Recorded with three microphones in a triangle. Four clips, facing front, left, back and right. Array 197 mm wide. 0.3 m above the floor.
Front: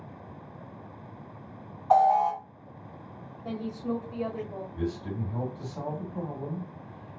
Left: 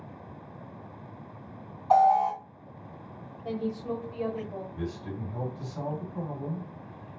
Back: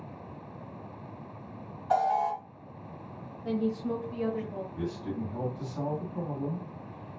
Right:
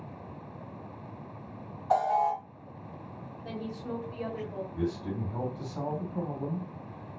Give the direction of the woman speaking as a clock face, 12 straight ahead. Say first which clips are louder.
Left 6 dB, back 3 dB; 11 o'clock.